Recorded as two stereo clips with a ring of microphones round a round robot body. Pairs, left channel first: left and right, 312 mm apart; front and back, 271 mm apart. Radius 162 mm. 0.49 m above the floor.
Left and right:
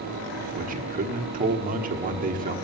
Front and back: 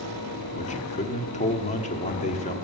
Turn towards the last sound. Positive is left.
turn(degrees=-45)